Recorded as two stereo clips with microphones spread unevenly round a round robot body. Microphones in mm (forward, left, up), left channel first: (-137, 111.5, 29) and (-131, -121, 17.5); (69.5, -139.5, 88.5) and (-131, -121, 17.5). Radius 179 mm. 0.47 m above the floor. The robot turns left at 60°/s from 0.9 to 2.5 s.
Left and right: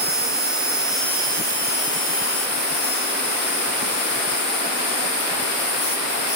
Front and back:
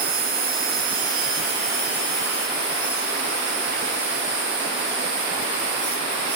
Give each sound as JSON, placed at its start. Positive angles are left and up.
{"t": 0.0, "sound": "an insect", "azimuth_deg": -175, "distance_m": 2.0}